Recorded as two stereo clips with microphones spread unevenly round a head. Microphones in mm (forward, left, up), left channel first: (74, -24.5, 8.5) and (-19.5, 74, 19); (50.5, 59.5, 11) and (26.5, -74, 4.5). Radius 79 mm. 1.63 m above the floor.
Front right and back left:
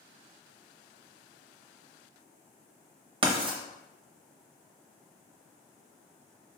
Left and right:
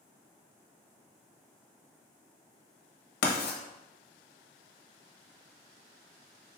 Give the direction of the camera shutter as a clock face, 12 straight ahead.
No camera shutter in this recording.